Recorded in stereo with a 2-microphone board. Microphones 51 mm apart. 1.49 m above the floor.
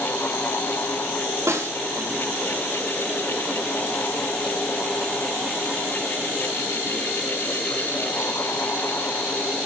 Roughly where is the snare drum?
Right.